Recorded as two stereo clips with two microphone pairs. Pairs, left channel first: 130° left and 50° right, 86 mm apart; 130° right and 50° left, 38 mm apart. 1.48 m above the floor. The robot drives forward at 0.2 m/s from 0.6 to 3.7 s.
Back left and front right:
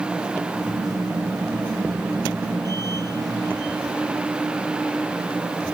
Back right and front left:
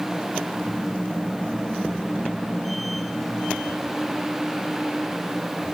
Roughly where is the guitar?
No guitar in this recording.